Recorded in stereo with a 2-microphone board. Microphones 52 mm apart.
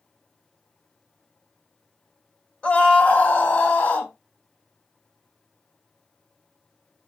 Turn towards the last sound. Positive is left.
turn(degrees=30)  # may be behind; listen again after turning